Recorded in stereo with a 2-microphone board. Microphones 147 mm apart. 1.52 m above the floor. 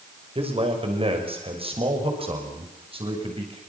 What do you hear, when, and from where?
0.3 s a man speaking: 40° right (ahead or behind), 5.5 m